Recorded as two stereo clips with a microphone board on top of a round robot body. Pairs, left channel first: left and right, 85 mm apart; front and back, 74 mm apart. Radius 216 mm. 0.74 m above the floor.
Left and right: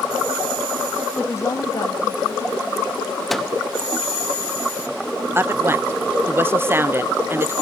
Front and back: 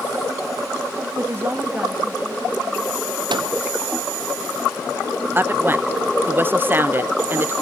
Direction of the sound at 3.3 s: 175° left.